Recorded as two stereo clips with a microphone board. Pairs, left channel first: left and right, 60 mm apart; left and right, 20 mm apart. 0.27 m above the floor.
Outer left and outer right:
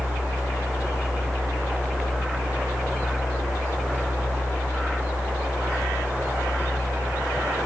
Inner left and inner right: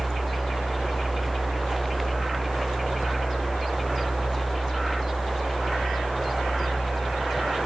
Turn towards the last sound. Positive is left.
No sound to turn to.